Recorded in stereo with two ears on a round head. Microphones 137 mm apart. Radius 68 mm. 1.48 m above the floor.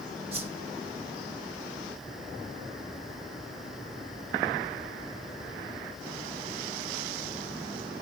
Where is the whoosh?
40° right (ahead or behind), 1.5 m.